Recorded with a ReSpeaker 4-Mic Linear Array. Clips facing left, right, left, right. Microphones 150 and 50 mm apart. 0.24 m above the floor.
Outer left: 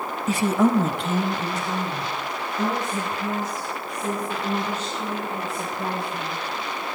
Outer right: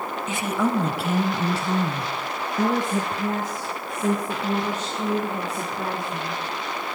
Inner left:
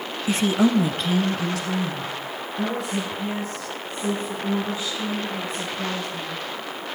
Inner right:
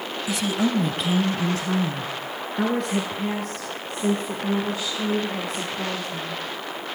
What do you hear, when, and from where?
0.3 s a woman speaking: 40° left (ahead or behind), 1.2 m; by 6.4 s 55° right (ahead or behind), 8 m